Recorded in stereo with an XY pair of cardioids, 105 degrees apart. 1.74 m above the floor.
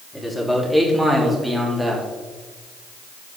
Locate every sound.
0.1 s a man speaking: 5° left, 3.5 m; by 2.0 s 15° right, 3.5 m